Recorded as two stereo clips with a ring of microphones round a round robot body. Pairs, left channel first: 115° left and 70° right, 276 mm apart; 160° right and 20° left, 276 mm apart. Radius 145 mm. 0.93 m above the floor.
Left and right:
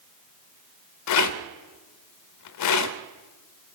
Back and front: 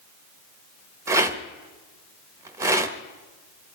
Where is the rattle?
100° left, 1.1 m.